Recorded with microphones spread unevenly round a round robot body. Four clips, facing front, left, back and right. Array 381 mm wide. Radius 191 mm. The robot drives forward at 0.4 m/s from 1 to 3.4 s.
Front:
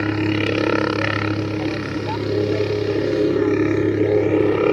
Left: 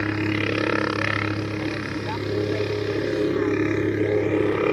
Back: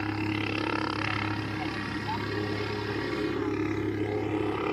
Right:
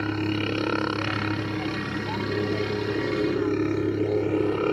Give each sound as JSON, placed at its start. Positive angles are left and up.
{"t": 0.0, "sound": "a helicopter", "azimuth_deg": 5}